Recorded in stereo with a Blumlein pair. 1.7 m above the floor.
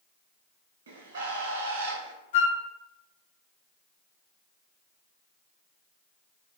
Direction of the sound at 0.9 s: 60° right.